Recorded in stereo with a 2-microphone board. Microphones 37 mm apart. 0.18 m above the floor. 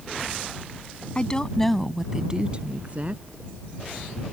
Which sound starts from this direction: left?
A woman speaking, at 1.1 s.